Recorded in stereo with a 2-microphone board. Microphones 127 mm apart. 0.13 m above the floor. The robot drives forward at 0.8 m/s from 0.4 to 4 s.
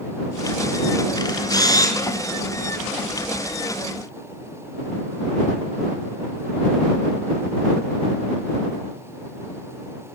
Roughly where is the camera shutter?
Left.